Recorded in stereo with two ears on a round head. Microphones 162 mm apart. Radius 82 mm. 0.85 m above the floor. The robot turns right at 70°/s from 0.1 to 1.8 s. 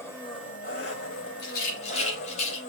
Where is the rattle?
65° left (ahead or behind), 3.5 m; by 2.6 s 40° left (ahead or behind), 3.5 m.